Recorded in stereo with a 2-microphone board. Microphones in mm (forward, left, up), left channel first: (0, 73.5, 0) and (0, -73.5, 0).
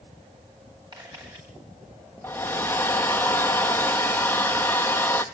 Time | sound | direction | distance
0.9 | a camera shutter | 30° right (ahead or behind) | 9 m
2.2 | a hair dryer | 15° left (ahead or behind) | 1.4 m